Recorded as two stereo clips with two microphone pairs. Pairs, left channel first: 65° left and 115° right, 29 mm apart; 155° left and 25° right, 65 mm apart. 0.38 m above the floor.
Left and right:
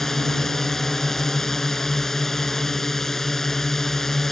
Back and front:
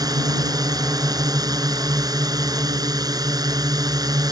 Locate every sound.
0.0 s a drone: 10° right